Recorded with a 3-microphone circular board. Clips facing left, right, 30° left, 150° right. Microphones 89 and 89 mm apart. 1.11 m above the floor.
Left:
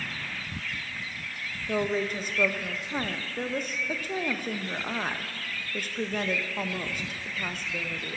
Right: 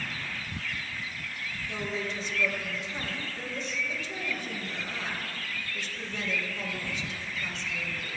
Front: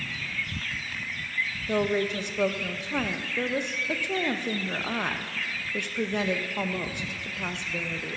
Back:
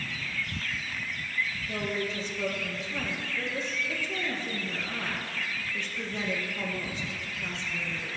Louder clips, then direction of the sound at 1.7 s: Left 8 dB, front 10 dB; 50° left.